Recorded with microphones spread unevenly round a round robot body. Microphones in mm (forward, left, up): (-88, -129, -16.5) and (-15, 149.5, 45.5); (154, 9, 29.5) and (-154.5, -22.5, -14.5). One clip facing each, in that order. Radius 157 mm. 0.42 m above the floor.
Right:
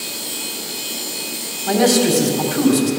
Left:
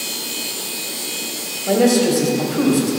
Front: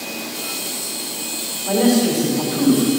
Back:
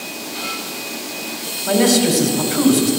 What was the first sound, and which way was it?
A man speaking, 140° right.